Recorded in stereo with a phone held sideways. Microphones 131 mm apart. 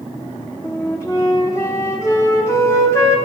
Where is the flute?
20° left (ahead or behind), 0.8 m.